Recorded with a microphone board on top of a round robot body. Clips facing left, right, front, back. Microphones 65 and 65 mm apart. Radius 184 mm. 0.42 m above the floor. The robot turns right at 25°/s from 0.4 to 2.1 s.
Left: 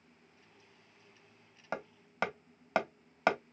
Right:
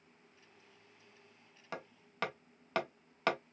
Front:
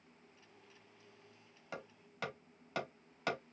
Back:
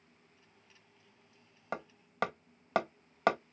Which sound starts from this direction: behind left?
Hammering, at 1.7 s.